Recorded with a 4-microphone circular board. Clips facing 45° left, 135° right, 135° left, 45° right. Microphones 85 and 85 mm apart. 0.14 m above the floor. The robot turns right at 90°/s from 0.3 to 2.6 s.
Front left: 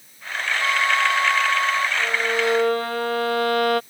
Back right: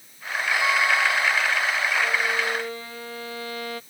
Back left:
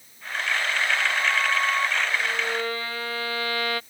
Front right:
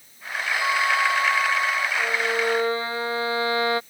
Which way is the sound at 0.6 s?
50° right.